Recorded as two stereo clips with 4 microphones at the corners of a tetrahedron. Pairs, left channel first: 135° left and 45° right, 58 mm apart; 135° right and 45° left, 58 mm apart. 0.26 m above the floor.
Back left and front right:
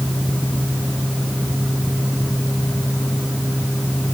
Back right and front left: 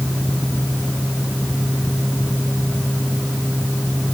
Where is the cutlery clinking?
I don't hear cutlery clinking.